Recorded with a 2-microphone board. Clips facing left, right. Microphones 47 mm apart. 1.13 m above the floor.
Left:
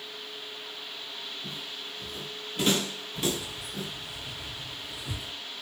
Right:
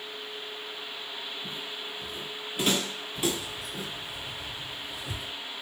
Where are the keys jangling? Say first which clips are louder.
Right 1 dB; 10° left (ahead or behind), 1.6 m.